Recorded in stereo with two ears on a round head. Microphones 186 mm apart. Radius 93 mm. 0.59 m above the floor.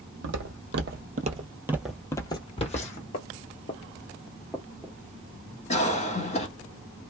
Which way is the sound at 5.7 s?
30° left (ahead or behind).